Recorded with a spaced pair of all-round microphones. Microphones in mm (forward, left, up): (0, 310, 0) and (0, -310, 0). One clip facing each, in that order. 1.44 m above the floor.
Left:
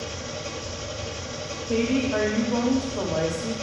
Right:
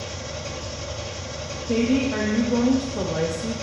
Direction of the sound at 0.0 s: 25° right (ahead or behind).